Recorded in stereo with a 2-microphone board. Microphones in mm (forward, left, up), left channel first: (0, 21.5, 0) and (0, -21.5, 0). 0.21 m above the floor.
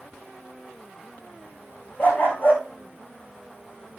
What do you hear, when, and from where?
2.0 s a dog barking: 45° left (ahead or behind), 5.5 m